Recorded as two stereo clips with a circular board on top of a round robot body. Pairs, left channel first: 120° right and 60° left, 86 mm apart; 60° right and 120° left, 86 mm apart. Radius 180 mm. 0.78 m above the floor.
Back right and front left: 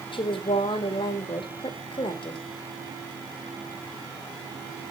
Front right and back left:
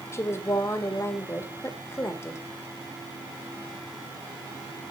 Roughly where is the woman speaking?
Behind right.